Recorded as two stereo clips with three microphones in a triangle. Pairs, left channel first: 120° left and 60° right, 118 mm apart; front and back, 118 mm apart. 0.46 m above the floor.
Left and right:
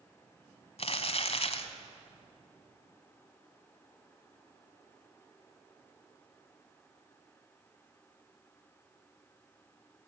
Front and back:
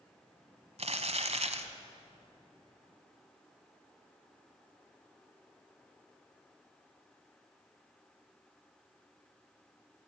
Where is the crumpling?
150° left, 1.3 m.